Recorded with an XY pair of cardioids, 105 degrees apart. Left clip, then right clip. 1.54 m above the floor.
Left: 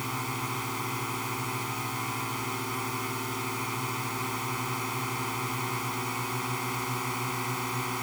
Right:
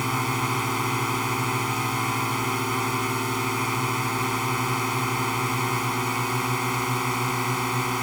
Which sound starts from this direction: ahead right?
A drone, at 0.0 s.